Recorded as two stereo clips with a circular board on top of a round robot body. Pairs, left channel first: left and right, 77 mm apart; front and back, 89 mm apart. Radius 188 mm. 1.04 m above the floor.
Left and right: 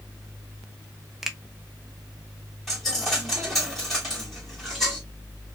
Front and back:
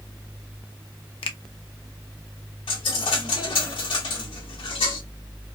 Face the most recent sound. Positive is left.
turn(degrees=5)